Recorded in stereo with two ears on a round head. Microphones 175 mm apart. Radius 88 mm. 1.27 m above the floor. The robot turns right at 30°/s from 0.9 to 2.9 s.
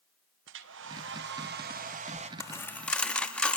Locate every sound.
0.5 s a hair dryer: 75° right, 1.0 m; by 2.3 s 35° right, 1.0 m
2.4 s a dropped coin: 15° left (ahead or behind), 0.8 m; by 3.6 s 5° left (ahead or behind), 0.8 m